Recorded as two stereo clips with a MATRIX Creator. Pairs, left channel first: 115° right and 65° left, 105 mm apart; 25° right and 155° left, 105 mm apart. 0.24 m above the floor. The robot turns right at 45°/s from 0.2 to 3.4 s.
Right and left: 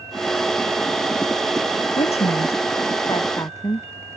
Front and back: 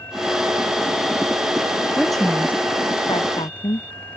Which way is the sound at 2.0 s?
120° right.